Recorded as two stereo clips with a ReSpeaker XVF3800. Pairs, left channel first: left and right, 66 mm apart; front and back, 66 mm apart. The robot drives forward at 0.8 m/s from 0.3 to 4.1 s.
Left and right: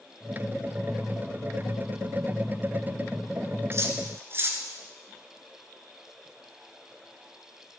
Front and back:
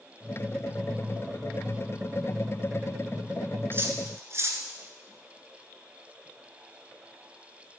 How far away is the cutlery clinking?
About 1.7 m.